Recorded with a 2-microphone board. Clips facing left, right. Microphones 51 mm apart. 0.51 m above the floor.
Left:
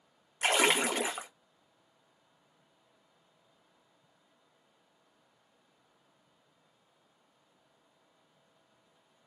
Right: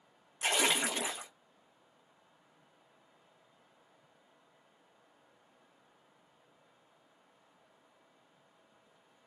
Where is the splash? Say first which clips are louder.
Left 4 dB; 50° left (ahead or behind), 0.6 m.